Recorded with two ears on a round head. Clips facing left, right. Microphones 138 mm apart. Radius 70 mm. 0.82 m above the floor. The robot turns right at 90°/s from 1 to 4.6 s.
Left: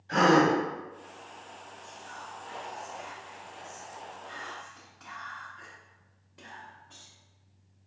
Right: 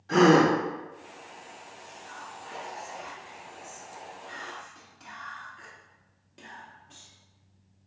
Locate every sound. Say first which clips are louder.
0.1 s a gasp: right 3 dB; 70° right (ahead or behind), 1.9 m
1.8 s whispering: even; 75° left, 1.0 m; by 7.1 s 35° right, 1.0 m